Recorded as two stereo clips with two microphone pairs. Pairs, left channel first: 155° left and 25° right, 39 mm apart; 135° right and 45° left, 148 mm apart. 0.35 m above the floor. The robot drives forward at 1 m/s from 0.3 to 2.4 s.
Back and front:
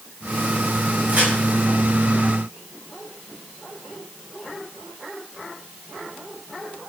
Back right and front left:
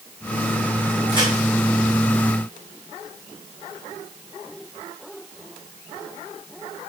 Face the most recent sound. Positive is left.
turn(degrees=-85)